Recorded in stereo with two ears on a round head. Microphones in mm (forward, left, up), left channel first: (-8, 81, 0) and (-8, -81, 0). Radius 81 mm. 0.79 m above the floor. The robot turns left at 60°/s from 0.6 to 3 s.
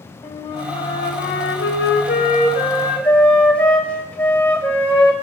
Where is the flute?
150° left, 4.5 m; by 5.1 s 5° left, 4.5 m.